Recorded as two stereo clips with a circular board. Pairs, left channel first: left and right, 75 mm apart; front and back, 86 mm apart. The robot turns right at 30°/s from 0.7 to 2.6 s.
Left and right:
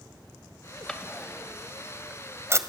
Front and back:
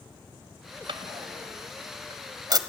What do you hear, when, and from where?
0.9 s a drawer: 170° left, 1.5 m; by 2.6 s 140° right, 1.5 m